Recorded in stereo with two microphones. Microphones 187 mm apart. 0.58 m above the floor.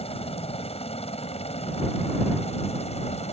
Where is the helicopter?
30° left (ahead or behind); by 3.3 s 35° left (ahead or behind).